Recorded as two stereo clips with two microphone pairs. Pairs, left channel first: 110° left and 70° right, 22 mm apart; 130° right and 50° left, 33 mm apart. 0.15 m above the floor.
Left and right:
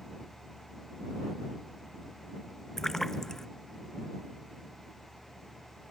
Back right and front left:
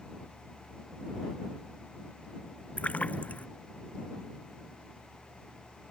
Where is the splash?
175° right.